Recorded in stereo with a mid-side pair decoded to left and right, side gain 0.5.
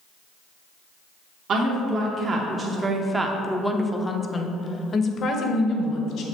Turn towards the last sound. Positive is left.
turn(degrees=65)